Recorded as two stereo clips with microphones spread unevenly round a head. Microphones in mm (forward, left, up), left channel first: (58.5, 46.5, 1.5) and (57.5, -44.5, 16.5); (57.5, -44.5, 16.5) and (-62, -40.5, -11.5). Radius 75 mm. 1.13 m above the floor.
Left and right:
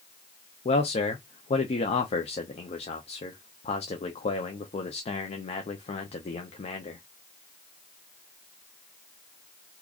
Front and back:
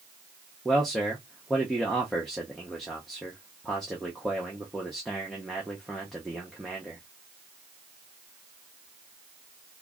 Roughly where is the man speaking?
Left.